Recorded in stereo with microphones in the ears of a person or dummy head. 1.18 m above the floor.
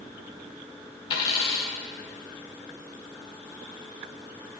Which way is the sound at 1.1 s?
30° left (ahead or behind).